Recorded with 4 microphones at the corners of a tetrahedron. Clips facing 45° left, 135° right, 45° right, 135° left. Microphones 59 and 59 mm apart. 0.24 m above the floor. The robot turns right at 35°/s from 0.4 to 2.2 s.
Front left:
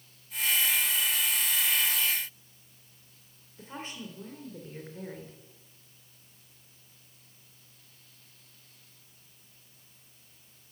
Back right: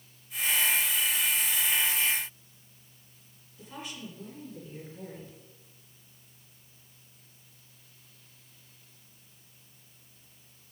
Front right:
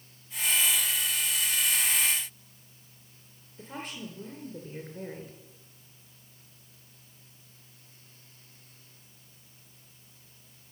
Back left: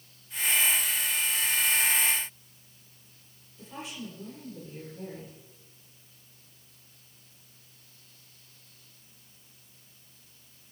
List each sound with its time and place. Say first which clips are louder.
3.6 s a woman speaking: front left 1 dB, front right 1 dB; 10° right, 3 m